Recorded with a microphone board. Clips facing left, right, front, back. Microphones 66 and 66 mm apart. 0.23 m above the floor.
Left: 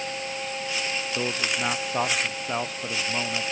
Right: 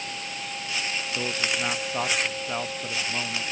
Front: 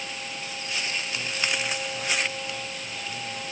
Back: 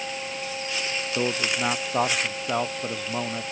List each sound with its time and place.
1.1 s a man speaking: 170° left